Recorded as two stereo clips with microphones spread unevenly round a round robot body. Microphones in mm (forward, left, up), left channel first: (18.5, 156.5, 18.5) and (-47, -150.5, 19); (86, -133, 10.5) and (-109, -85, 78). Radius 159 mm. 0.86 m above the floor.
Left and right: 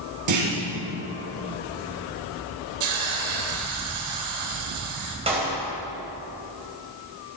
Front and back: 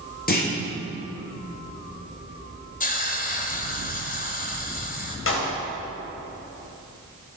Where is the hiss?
65° right, 2.5 m.